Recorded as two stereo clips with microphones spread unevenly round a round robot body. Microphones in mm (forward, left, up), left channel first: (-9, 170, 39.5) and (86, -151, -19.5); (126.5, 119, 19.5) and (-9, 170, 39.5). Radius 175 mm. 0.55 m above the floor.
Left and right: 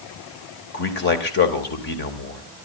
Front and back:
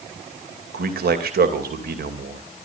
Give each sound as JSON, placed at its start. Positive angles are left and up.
{"t": 0.7, "sound": "a man speaking", "azimuth_deg": 170, "distance_m": 2.5}